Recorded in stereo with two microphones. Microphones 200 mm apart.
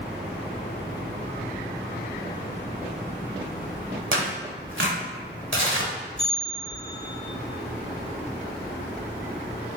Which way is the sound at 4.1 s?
80° right.